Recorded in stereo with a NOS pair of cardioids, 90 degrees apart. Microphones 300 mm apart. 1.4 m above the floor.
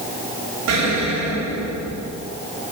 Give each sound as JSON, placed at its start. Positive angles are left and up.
{"t": 0.7, "sound": "an explosion", "azimuth_deg": -65, "distance_m": 7.0}